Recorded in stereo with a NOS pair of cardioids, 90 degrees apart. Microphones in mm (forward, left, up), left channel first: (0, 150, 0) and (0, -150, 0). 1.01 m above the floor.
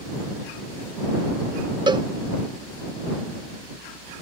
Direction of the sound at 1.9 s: 15° right.